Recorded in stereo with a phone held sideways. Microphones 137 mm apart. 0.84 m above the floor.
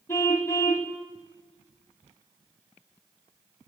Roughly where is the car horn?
Left.